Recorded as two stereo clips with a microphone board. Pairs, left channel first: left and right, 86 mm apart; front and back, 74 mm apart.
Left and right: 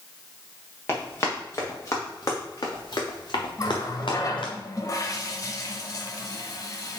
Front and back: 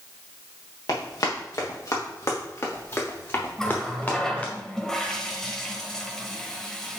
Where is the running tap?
75° left, 1.0 m.